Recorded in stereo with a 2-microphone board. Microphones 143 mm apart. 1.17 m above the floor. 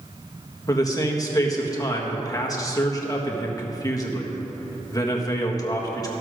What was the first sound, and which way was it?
A man speaking, 25° left (ahead or behind).